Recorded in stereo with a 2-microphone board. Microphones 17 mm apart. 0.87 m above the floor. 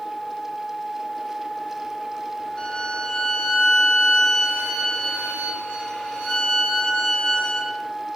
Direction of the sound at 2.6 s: 75° left (ahead or behind).